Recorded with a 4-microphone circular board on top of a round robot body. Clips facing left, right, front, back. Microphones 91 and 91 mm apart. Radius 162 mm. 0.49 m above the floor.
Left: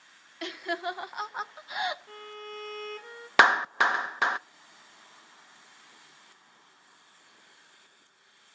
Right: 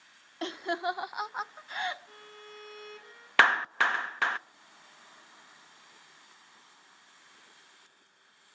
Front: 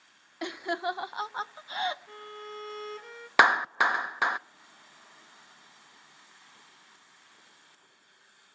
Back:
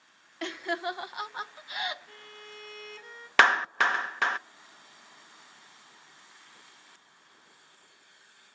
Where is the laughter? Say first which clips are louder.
Right 1 dB, front 1 dB; 65° right, 1.2 m; by 2.0 s 30° left, 1.1 m.